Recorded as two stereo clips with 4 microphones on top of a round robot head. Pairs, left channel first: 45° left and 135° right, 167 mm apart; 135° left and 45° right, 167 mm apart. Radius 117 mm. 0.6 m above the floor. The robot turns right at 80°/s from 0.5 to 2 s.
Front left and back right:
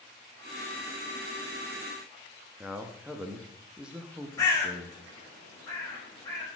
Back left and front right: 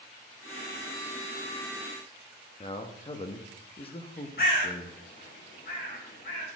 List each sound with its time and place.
2.6 s a man speaking: 145° left, 1.1 m
4.4 s a bird: 115° left, 3.5 m